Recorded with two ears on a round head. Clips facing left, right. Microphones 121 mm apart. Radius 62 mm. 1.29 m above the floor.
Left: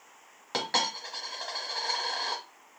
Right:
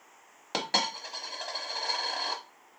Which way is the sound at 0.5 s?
20° right (ahead or behind).